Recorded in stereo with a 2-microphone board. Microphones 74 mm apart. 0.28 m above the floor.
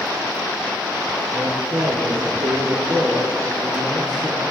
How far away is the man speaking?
About 3.5 m.